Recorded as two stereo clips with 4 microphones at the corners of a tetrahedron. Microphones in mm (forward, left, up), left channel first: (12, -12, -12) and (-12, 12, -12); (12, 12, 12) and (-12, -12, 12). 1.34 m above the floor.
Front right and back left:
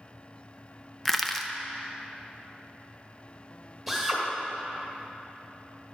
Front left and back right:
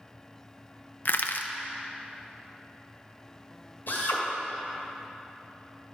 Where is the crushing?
35° left, 0.5 m.